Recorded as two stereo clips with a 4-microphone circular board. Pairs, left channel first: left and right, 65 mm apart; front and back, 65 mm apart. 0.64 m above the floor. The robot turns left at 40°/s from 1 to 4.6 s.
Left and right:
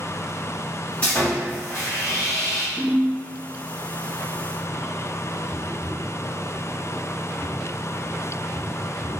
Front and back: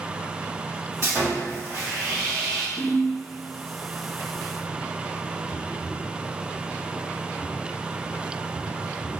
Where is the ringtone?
90° left, 1.7 m; by 3.1 s 75° left, 1.7 m.